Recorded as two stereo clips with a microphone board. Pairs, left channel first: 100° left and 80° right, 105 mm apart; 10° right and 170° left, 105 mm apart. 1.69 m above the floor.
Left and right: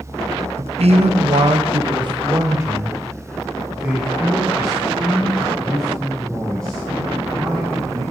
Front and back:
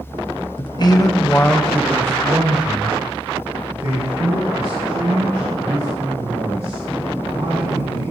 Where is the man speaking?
55° right, 1.5 m; by 8.0 s 175° right, 6.5 m.